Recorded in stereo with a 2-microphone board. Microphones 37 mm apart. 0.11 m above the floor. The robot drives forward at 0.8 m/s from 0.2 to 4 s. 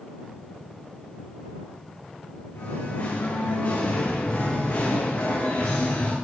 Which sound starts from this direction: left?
Singing, at 2.5 s.